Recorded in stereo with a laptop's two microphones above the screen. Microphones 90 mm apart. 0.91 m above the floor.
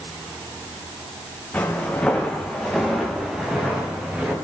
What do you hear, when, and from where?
1.5 s footsteps: 20° left (ahead or behind), 4.5 m; by 4.3 s 20° right (ahead or behind), 6.5 m